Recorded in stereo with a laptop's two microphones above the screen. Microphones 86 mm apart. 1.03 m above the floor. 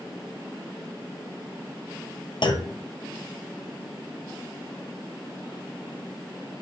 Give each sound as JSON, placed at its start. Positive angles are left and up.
{"t": 2.4, "sound": "a clunk", "side_deg": 65, "distance_m": 0.5}